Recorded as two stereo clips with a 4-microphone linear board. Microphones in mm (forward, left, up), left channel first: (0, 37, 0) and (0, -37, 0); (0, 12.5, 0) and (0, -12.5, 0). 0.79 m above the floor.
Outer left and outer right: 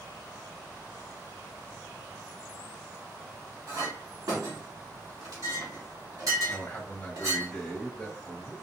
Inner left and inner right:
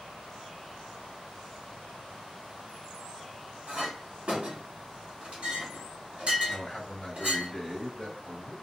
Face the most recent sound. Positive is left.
turn(degrees=25)  # may be behind; listen again after turning